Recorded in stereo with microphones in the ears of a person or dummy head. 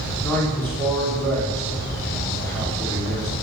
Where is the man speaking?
5° left (ahead or behind), 4.5 m.